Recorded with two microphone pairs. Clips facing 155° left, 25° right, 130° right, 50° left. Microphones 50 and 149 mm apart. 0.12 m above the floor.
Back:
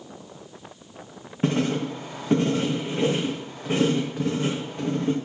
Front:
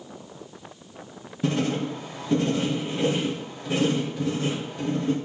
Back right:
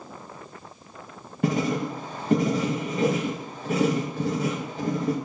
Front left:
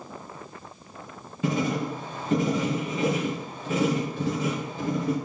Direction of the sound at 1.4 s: 160° right.